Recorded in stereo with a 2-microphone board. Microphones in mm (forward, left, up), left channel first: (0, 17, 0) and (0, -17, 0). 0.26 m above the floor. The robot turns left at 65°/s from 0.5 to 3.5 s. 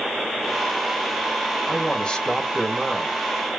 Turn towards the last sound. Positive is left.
turn(degrees=-55)